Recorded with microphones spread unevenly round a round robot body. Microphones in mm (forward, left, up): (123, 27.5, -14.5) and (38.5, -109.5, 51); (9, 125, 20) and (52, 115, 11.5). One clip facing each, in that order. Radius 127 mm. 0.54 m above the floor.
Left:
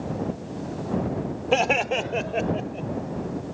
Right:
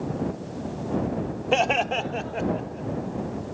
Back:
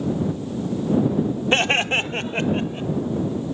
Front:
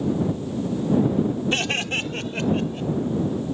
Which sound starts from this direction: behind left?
Laughter, at 1.5 s.